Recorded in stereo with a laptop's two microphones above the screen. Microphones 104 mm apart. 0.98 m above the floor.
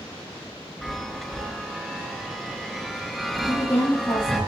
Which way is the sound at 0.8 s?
Centre (ahead or behind).